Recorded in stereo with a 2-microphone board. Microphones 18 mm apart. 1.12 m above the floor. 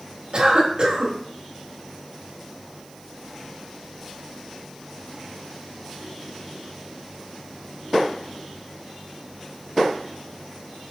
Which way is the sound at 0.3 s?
50° right (ahead or behind).